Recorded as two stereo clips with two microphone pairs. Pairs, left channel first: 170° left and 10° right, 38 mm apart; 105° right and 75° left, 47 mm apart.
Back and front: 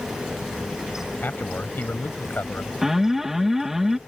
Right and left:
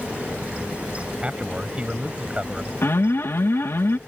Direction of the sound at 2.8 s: 90° right.